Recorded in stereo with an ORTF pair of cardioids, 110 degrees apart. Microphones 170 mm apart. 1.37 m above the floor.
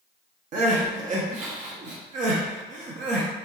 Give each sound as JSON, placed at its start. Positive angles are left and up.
{"t": 0.5, "sound": "crying", "azimuth_deg": -50, "distance_m": 0.8}